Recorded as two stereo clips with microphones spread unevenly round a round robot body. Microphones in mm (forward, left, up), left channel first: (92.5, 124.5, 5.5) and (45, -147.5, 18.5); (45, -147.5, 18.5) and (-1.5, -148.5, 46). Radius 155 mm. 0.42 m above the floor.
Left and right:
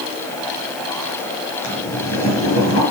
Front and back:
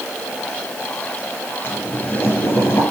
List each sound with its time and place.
1.6 s boiling: 50° left, 7 m